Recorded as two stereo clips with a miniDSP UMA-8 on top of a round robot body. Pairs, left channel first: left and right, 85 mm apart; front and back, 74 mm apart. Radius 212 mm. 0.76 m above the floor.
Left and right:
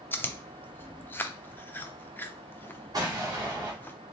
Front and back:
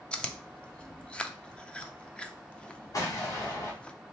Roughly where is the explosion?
Ahead right.